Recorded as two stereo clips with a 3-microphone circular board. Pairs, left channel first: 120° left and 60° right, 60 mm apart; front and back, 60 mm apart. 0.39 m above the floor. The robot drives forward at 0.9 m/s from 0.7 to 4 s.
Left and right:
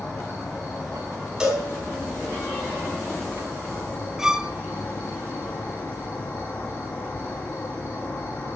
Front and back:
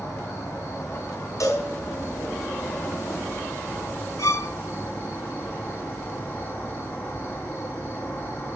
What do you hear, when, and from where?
0.0 s an insect: 45° left, 8 m; by 8.6 s 65° left, 6 m
1.4 s a cowbell: 20° left, 3.5 m
4.2 s a violin: 20° left, 0.6 m